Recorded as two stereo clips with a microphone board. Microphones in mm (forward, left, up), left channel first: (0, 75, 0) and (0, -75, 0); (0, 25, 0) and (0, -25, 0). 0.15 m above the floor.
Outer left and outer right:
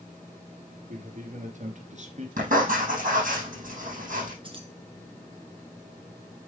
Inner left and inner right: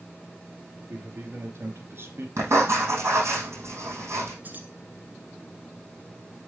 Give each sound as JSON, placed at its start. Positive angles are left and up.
{"t": 0.9, "sound": "a man speaking", "side_deg": -60, "distance_m": 2.5}
{"t": 2.4, "sound": "writing", "side_deg": -65, "distance_m": 4.5}
{"t": 4.4, "sound": "keys jangling", "side_deg": -35, "distance_m": 1.5}